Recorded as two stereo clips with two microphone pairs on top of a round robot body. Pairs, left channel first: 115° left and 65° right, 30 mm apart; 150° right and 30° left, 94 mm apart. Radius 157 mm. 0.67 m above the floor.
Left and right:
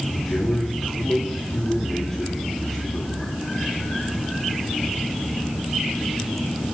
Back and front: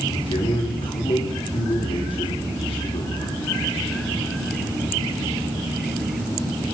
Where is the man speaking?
170° right, 3 m.